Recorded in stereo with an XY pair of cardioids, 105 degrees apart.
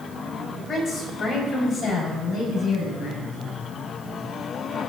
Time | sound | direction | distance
0.6 | a woman speaking | 35° left | 4.5 m